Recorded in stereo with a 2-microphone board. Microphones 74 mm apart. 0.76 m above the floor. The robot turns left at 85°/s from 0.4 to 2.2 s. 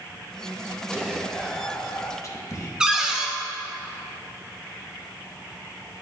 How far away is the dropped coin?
I don't hear a dropped coin.